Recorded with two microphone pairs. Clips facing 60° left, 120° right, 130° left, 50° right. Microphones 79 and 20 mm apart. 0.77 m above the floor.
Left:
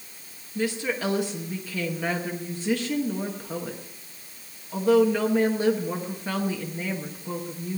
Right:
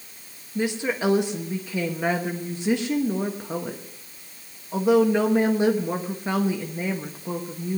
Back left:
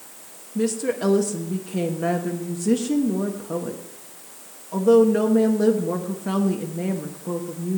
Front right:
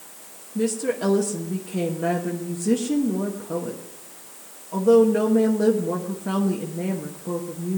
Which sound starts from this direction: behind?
A woman speaking, at 0.6 s.